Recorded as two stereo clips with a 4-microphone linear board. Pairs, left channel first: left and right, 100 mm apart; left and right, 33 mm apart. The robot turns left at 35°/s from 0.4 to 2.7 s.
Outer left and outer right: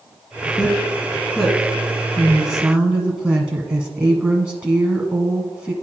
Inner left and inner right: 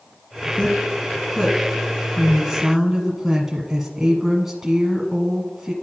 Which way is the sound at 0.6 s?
45° left.